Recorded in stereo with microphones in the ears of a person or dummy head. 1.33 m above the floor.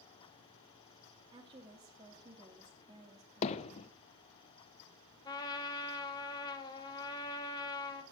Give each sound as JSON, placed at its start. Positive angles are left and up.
{"t": 1.3, "sound": "a woman speaking", "side_deg": -25, "distance_m": 1.5}
{"t": 3.4, "sound": "hammering", "side_deg": 35, "distance_m": 0.6}
{"t": 5.2, "sound": "a trumpet", "side_deg": 25, "distance_m": 1.6}